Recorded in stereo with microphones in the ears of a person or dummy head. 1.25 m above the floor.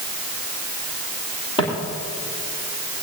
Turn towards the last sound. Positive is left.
turn(degrees=35)  # may be behind; listen again after turning